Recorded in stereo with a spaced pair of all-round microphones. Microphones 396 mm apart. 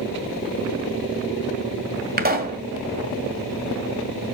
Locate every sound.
2.2 s a pop: 25° right (ahead or behind), 1.8 m